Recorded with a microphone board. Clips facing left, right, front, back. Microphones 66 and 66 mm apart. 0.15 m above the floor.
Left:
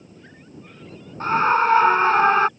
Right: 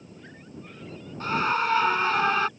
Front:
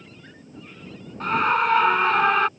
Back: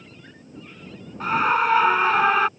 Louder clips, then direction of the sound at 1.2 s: Left 7 dB, back 1 dB; 95° left.